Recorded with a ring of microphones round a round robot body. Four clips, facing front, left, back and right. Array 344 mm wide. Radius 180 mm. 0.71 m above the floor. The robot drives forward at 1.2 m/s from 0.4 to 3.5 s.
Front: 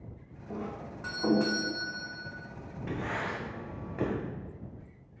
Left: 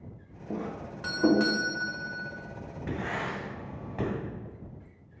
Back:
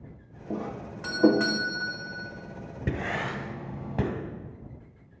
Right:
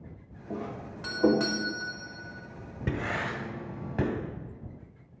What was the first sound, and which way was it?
A doorbell, 155° left.